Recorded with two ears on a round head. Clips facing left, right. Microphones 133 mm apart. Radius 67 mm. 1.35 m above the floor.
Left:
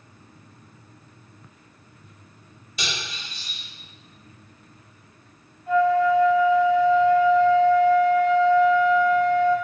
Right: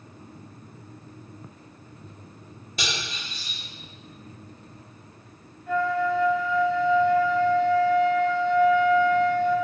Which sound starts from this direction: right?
Cutlery clinking, at 2.8 s.